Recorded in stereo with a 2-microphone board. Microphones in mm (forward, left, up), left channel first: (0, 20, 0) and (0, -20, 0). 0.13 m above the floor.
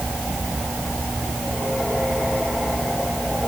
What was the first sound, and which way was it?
Only background noise.